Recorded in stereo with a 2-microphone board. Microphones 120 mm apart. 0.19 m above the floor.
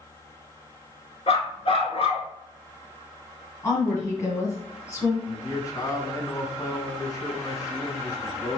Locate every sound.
1.3 s a dog barking: 60° left (ahead or behind), 0.9 m
3.6 s a woman speaking: 25° left (ahead or behind), 1.6 m
5.3 s a man speaking: 35° left (ahead or behind), 1.2 m